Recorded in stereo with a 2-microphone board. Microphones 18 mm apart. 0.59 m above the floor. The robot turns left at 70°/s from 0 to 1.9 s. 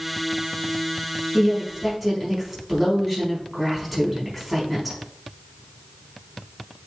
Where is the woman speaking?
135° right, 4.5 m; by 5.0 s 170° right, 4.5 m.